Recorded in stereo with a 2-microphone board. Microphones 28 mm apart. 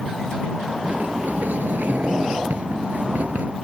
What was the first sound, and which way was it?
A sliding door, 75° right (ahead or behind).